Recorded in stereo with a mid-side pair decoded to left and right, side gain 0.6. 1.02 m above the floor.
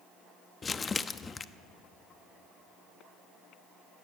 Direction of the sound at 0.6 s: 30° left.